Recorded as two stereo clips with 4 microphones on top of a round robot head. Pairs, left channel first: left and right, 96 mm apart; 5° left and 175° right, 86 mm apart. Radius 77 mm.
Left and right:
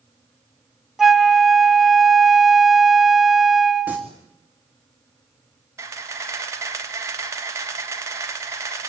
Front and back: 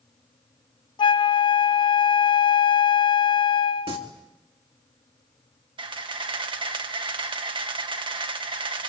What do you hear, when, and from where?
1.0 s a flute: 5° right, 0.8 m
3.9 s singing: 170° right, 3.5 m
5.8 s a camera shutter: 150° right, 1.8 m